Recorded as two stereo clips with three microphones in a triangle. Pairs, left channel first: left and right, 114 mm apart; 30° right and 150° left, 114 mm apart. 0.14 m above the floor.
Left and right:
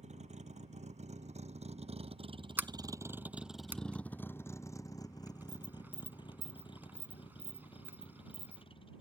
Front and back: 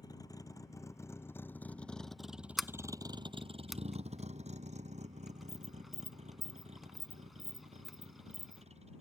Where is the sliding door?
120° right.